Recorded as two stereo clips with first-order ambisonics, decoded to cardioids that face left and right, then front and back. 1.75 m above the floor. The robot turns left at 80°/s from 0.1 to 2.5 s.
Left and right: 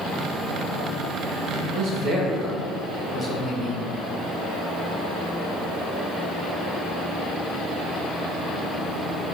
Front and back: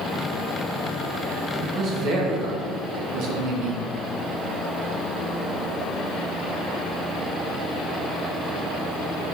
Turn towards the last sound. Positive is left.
turn(degrees=180)